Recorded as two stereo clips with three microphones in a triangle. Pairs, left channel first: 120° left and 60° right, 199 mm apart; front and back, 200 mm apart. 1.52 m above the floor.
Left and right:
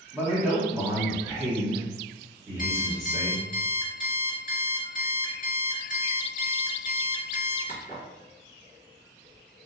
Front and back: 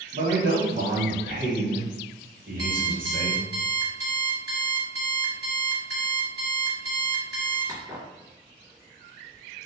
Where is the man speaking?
135° right, 1.0 m.